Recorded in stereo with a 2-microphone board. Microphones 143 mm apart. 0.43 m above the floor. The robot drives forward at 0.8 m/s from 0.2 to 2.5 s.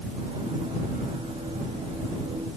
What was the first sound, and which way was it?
Only background noise.